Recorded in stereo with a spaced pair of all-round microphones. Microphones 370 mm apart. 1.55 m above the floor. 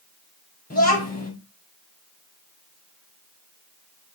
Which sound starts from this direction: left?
A child speaking, at 0.7 s.